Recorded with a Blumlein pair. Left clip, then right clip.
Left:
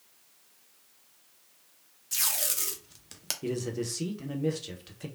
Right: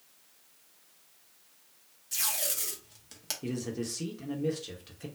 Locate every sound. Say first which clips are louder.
2.1 s tape being pulled: left 2 dB; 15° left, 0.6 m
3.4 s a man speaking: left 4 dB; 10° left, 0.7 m